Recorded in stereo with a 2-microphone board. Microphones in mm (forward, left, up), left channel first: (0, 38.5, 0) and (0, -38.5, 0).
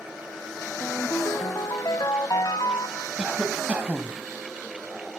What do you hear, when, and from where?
0.8 s a ringtone: 50° left (ahead or behind), 0.5 m
3.2 s a cough: 15° right (ahead or behind), 1.3 m